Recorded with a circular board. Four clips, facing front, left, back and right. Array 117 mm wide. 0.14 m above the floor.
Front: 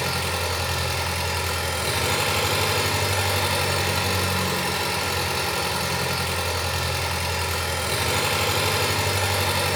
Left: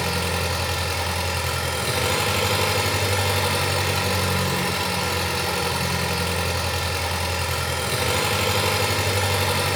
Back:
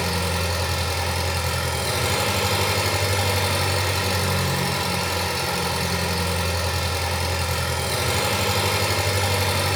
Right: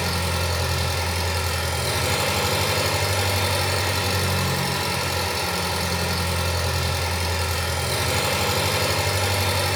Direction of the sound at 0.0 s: 50° left.